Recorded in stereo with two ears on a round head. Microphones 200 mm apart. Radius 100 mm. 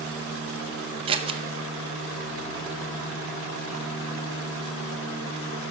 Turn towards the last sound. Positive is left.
turn(degrees=-25)  # may be behind; listen again after turning